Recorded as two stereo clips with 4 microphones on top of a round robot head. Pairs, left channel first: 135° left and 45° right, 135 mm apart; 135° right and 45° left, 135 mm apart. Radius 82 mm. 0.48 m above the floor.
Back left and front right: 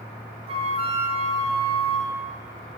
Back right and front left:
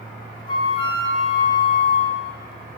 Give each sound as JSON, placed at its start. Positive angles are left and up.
{"t": 0.5, "sound": "a flute", "azimuth_deg": -85, "distance_m": 0.9}